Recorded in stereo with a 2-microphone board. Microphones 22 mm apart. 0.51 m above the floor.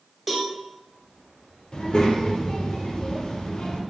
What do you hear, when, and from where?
0.3 s a cowbell: 10° right (ahead or behind), 0.8 m
1.7 s a child speaking: 40° left (ahead or behind), 0.7 m